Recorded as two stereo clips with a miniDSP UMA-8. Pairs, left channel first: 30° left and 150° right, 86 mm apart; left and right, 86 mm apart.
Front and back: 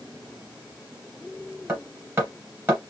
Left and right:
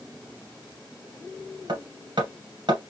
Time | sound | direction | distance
1.7 | hammering | 95° right | 2 m